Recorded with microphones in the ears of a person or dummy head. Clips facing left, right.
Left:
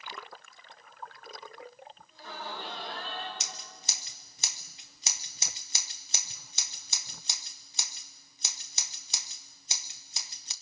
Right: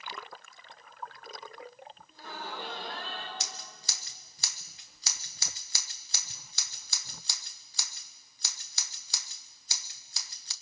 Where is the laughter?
45° right (ahead or behind), 6.5 m; by 3.3 s 55° right (ahead or behind), 6.5 m.